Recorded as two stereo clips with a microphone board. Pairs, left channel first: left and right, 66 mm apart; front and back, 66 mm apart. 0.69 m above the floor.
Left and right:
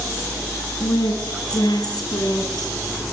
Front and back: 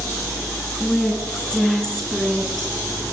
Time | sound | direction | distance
0.8 | a woman speaking | 75° left | 8 m